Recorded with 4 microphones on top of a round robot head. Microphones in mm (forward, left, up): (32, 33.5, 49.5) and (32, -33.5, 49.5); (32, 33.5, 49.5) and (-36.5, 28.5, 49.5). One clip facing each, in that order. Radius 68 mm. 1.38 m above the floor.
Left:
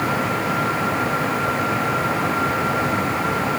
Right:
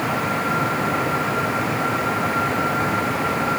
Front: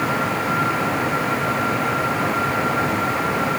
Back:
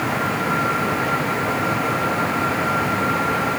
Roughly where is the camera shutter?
I don't hear a camera shutter.